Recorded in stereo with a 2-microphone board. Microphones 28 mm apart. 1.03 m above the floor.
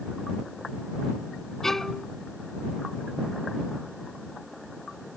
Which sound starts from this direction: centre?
A violin, at 1.6 s.